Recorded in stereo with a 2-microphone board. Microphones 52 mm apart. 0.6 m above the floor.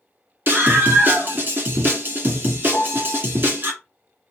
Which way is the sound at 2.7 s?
75° left (ahead or behind).